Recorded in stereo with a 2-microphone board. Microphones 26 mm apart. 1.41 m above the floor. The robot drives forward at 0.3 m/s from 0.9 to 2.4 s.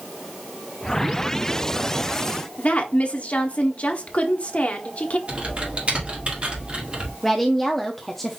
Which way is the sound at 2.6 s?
50° left (ahead or behind).